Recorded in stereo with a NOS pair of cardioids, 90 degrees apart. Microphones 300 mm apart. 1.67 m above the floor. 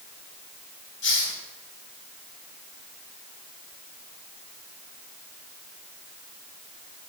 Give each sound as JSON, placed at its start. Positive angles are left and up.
{"t": 1.0, "sound": "a hiss", "azimuth_deg": 40, "distance_m": 2.5}